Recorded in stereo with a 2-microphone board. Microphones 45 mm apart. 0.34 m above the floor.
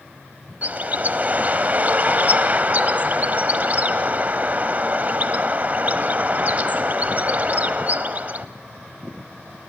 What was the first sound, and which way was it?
A bird, 35° right (ahead or behind).